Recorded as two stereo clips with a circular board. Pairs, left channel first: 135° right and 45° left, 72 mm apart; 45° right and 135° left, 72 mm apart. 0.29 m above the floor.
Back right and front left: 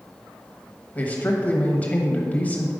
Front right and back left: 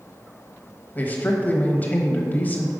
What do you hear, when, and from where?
0.9 s a man speaking: 85° right, 1.1 m